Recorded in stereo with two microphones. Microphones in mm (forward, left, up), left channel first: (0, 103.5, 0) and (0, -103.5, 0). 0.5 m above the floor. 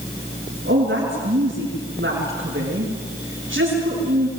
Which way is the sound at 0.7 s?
70° right (ahead or behind).